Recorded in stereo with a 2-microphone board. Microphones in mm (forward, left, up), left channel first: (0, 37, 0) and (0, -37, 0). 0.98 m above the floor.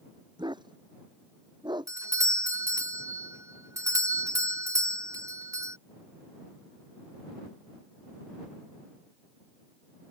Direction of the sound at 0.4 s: 90° right.